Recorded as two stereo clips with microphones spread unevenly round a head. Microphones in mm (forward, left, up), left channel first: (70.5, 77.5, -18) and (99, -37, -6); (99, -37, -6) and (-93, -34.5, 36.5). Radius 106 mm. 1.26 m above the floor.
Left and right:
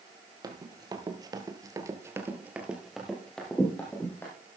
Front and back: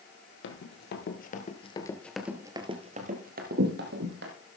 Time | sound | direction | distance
0.4 | running footsteps | 30° right | 2.5 m